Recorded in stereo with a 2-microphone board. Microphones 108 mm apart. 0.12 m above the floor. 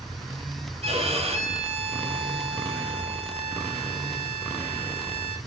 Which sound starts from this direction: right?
A violin, at 0.8 s.